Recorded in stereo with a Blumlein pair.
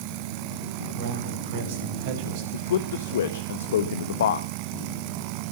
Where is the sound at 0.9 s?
60° right, 6.5 m; by 2.4 s 50° right, 6 m.